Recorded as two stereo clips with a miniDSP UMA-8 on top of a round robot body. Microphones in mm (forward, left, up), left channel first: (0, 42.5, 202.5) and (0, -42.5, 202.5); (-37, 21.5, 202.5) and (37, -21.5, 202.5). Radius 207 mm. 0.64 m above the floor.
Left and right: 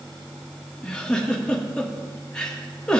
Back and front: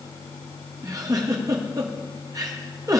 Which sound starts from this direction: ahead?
A giggle, at 0.8 s.